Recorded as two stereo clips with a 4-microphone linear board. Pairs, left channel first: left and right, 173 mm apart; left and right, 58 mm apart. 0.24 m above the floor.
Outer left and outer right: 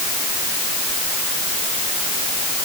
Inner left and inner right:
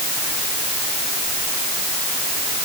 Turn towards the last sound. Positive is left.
No sound to turn to.